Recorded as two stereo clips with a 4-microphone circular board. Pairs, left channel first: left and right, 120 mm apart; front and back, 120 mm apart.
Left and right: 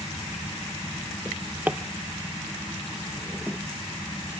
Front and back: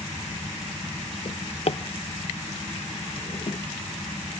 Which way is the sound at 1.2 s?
15° right.